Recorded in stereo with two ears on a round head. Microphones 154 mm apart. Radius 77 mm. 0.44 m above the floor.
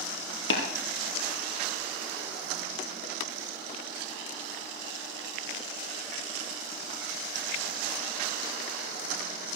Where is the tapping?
75° left (ahead or behind), 4 m.